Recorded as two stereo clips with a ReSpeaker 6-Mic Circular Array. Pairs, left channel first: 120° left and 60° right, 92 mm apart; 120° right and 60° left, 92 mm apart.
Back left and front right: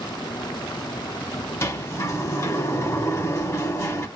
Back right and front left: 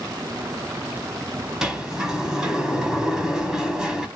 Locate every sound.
1.6 s a sliding door: 135° left, 0.7 m